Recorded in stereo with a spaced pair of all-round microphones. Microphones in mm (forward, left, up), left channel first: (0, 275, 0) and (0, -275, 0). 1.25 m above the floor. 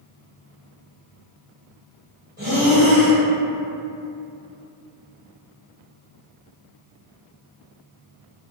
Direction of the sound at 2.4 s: 15° right (ahead or behind).